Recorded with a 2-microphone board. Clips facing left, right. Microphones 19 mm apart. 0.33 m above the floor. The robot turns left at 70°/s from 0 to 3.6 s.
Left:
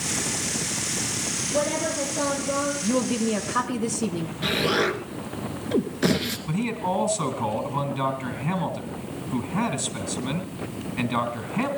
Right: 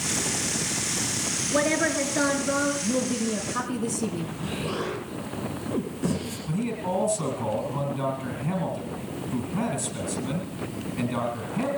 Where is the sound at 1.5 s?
50° right, 4.5 m; by 2.7 s 135° right, 4.5 m.